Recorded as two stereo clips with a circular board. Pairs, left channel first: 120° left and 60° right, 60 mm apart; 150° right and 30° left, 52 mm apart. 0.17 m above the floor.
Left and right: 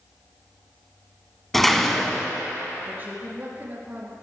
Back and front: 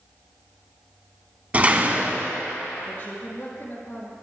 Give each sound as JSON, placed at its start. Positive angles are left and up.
{"t": 1.5, "sound": "a door slam", "azimuth_deg": 40, "distance_m": 1.1}
{"t": 2.9, "sound": "a woman speaking", "azimuth_deg": -110, "distance_m": 3.5}